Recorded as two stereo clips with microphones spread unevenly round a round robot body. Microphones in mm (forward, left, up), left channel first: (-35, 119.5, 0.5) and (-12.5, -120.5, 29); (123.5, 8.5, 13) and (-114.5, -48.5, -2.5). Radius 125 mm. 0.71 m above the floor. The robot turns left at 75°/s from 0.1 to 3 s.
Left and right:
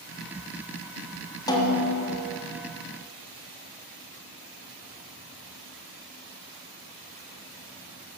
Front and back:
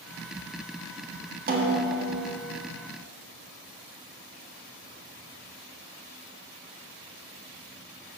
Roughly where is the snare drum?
Behind.